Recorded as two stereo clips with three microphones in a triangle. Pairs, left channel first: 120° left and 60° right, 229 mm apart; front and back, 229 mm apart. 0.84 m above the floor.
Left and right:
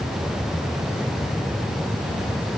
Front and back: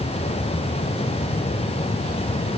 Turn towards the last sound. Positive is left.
No sound to turn to.